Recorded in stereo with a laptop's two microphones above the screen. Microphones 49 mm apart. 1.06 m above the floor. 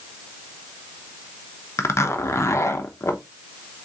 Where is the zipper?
60° left (ahead or behind), 0.8 m.